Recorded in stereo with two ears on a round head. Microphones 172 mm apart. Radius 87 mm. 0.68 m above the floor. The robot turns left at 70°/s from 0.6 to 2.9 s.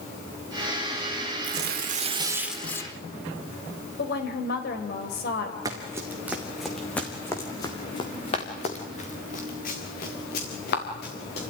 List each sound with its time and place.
1.4 s tearing paper: 100° right, 1.5 m; by 3.0 s 155° left, 1.5 m
4.0 s a woman speaking: 55° left (ahead or behind), 3.5 m
5.7 s running footsteps: 20° right (ahead or behind), 2.5 m; by 11.4 s 55° left (ahead or behind), 5 m